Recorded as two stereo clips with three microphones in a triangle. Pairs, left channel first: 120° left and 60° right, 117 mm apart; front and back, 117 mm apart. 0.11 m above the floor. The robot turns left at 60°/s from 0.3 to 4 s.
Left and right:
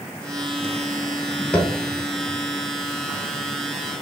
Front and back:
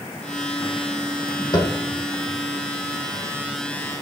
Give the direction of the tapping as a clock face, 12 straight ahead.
11 o'clock.